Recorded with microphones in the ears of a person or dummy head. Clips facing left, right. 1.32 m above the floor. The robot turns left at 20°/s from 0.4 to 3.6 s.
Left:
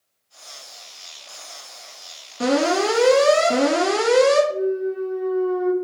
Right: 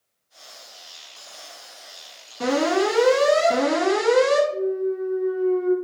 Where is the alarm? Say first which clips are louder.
Left 1 dB; 30° left (ahead or behind), 1.9 m; by 4.4 s 45° left (ahead or behind), 1.9 m.